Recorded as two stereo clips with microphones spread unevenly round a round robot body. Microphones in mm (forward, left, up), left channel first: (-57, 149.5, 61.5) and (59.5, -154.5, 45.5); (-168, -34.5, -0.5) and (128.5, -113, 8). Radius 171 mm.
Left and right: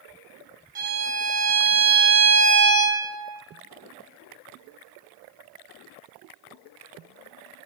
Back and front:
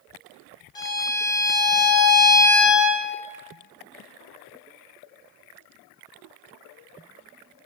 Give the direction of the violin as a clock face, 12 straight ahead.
4 o'clock.